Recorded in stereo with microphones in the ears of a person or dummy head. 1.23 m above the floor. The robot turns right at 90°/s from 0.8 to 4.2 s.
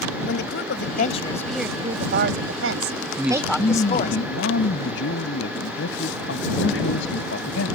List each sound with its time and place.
0.2 s a woman speaking: 115° left; by 4.2 s 55° left
3.2 s a man speaking: 15° right; by 7.8 s 75° left